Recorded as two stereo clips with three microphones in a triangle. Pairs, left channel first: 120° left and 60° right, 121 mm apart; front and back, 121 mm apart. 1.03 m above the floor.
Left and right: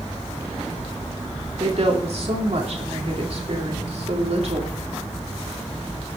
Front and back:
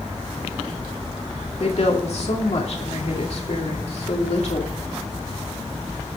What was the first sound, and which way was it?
A woman speaking, 30° right.